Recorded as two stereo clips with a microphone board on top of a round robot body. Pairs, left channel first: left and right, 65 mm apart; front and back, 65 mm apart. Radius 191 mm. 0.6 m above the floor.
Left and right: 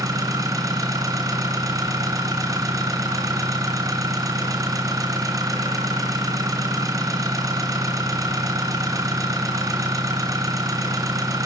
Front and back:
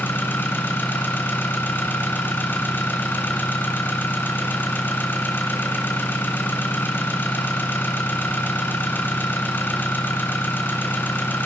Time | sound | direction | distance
0.0 | an engine running | 60° right | 2.5 m